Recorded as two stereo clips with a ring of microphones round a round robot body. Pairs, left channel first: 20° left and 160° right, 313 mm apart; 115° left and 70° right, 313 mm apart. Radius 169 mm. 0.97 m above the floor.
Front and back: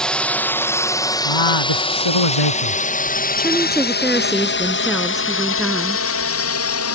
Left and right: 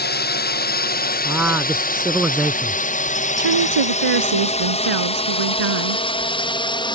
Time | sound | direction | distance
0.0 | a drone | 110° left | ?
1.2 | a man speaking | 20° left | ?
3.4 | a woman speaking | 70° right | ?